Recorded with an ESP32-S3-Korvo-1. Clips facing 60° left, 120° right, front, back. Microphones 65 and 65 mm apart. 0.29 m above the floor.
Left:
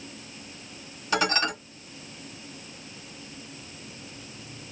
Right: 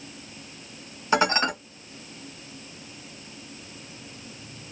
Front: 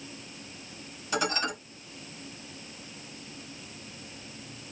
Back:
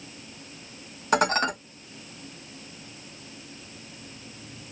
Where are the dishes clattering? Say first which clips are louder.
Right 3 dB, back 7 dB; straight behind, 1.2 m.